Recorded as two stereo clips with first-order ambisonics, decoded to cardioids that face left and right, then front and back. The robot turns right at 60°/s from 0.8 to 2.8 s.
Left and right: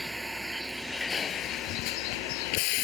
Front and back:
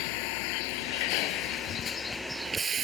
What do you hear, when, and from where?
0.0 s a vehicle: 5° right; by 2.9 s 115° left